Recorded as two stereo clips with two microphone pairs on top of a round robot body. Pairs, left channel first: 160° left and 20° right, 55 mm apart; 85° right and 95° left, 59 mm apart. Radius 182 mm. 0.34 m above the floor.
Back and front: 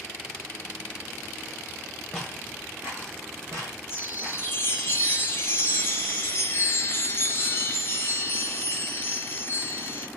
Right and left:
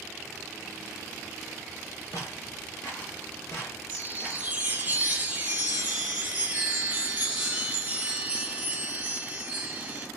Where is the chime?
145° left, 1.4 m.